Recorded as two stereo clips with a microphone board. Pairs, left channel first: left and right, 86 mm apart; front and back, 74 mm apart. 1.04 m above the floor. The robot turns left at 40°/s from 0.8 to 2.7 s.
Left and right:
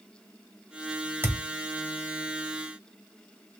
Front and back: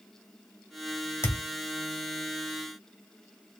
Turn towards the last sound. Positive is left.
turn(degrees=-95)